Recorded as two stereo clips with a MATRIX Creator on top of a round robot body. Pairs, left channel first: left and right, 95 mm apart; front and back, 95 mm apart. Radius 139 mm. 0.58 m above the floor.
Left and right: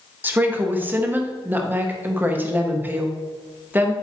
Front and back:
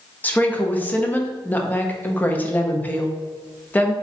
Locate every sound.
0.2 s a woman speaking: 45° right, 0.8 m